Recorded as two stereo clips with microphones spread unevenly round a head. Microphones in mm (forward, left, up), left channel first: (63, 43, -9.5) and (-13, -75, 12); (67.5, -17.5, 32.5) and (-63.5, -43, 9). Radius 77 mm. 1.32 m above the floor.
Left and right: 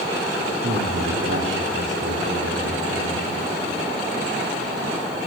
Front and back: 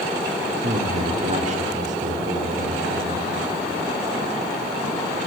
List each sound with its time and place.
0.6 s a man speaking: 130° right, 3 m; by 3.3 s 145° right, 6 m